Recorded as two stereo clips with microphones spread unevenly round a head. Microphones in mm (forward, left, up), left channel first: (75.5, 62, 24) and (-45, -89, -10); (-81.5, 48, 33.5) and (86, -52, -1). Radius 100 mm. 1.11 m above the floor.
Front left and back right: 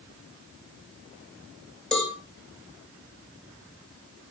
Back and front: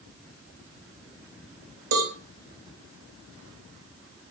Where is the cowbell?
35° right, 3 m.